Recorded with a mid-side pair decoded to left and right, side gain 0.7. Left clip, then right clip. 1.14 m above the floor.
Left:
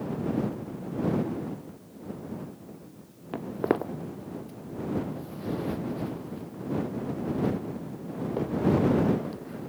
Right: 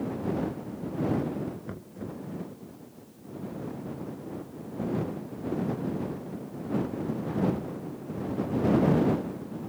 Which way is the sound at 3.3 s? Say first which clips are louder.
Left 11 dB; 65° left.